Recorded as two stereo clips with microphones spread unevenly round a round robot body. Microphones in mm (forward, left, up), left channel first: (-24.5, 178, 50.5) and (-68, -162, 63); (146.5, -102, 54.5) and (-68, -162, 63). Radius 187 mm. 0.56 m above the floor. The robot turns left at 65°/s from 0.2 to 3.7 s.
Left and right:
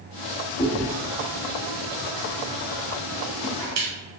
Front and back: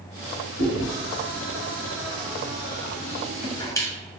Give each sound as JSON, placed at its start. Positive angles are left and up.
{"t": 0.6, "sound": "chewing", "azimuth_deg": 145, "distance_m": 1.1}